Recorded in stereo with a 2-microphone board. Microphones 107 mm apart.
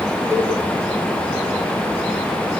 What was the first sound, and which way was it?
A cowbell, 25° right (ahead or behind).